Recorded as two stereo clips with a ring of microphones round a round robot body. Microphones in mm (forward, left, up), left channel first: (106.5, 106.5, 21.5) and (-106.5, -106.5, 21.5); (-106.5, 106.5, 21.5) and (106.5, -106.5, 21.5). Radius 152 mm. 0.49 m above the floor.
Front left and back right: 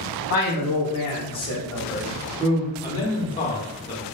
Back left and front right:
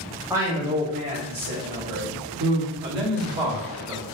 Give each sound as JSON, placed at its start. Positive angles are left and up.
{"t": 0.3, "sound": "a man speaking", "azimuth_deg": 35, "distance_m": 1.1}
{"t": 2.8, "sound": "a man speaking", "azimuth_deg": -20, "distance_m": 1.1}